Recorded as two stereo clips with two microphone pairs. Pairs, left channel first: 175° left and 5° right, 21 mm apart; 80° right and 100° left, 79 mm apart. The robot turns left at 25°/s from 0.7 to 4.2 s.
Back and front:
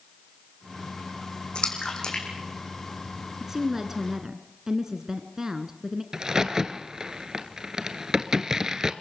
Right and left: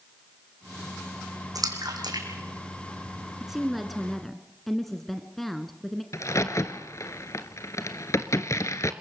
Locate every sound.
1.6 s a splash: 135° left, 4 m; by 3.3 s 90° left, 4 m
3.4 s a woman speaking: 25° left, 1.1 m; by 6.0 s 5° left, 1.1 m
6.1 s a crack: 55° right, 1.0 m